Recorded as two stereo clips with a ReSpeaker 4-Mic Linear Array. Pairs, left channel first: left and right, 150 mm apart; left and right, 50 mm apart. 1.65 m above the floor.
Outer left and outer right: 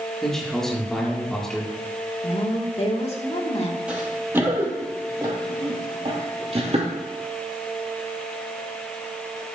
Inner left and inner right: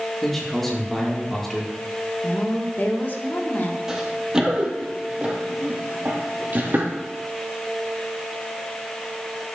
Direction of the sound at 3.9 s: 10° right (ahead or behind).